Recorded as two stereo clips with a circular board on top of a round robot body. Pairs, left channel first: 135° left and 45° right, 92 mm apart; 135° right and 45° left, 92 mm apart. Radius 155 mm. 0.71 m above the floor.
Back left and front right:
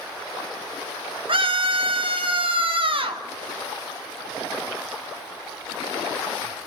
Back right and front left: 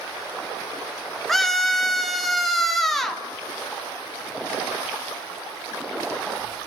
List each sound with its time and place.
1.3 s a scream: 50° right, 2 m